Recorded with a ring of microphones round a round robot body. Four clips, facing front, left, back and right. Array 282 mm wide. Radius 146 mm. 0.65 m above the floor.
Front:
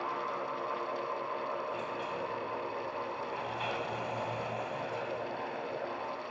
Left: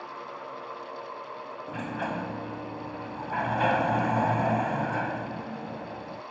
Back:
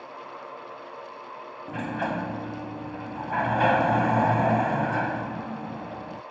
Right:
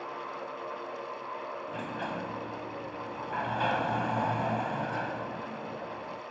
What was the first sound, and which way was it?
A sliding door, 160° left.